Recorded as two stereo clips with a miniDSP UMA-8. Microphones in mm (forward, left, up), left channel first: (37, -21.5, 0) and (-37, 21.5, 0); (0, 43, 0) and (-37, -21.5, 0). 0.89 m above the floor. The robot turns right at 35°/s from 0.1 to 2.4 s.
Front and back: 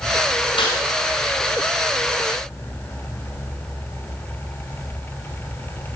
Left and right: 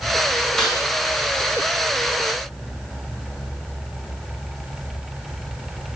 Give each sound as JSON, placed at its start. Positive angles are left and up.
{"t": 0.6, "sound": "a snare drum", "azimuth_deg": -25, "distance_m": 5.5}